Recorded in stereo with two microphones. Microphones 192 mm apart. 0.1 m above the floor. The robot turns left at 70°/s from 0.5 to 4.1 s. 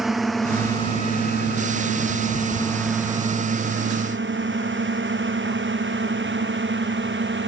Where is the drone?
Centre (ahead or behind); by 7.5 s 75° right (ahead or behind).